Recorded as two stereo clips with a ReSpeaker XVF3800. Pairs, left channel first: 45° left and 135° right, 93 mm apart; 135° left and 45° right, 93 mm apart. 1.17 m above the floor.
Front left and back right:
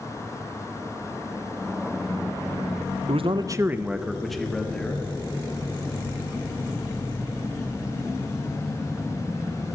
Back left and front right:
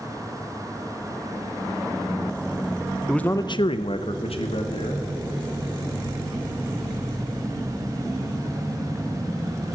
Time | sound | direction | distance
3.1 | a man speaking | 135° right | 0.6 m